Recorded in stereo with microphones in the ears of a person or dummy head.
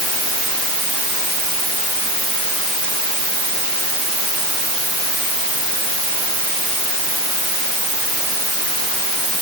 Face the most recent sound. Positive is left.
No sound to turn to.